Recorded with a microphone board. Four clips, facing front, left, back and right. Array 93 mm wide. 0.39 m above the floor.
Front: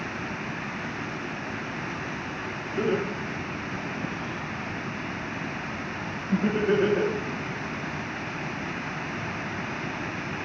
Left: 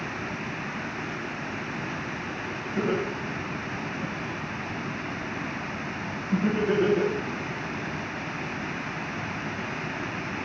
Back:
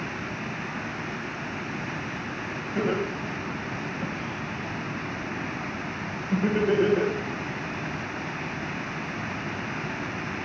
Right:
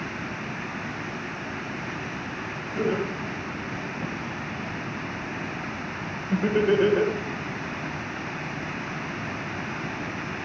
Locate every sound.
2.8 s laughter: 170° right, 2.5 m; by 7.1 s 80° right, 1.7 m